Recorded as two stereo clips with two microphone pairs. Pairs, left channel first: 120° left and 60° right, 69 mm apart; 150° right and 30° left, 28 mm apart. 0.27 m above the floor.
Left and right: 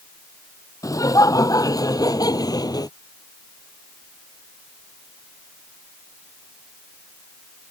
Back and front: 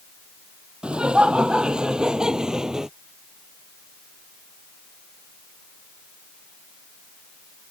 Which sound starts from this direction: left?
Laughter, at 0.8 s.